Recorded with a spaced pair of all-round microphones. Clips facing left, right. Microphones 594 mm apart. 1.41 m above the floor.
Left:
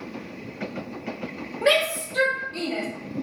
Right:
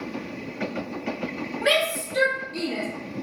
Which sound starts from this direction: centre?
A shout, at 1.6 s.